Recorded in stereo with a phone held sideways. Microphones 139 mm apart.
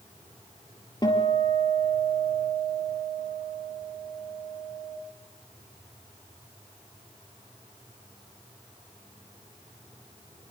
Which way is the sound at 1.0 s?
30° left (ahead or behind).